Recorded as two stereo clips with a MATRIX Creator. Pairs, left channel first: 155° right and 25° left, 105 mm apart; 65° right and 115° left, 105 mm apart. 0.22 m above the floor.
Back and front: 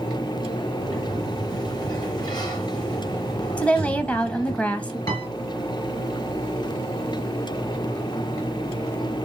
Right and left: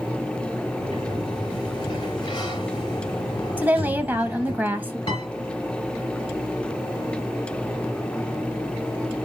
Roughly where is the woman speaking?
Behind left.